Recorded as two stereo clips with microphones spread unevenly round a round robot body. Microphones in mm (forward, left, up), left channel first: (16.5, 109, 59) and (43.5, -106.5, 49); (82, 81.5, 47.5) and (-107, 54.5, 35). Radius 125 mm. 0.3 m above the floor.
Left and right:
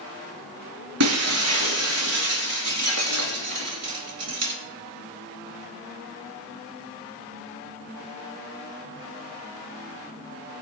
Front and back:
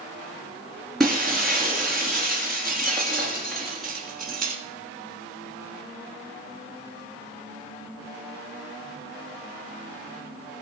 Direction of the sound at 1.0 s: 80° right.